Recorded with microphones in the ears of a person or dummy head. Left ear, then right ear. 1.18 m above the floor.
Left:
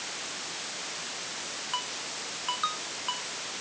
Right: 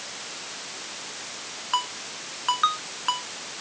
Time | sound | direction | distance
1.7 | a ringtone | 40° right (ahead or behind) | ?